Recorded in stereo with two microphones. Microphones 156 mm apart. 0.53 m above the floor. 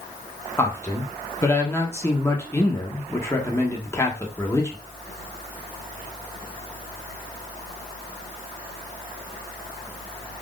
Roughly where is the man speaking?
Centre.